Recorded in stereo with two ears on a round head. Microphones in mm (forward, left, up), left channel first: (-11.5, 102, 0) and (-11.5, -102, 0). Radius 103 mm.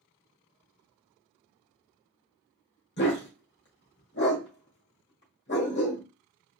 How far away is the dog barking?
About 1.6 m.